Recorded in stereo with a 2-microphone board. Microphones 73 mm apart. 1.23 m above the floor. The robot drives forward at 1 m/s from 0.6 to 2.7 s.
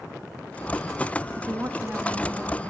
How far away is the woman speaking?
About 1.3 m.